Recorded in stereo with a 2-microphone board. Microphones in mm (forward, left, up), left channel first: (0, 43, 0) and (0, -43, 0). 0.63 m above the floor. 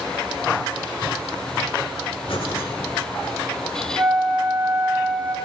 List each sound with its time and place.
2.3 s breathing: 75° left (ahead or behind), 1.2 m
4.0 s a flute: 15° right (ahead or behind), 1.5 m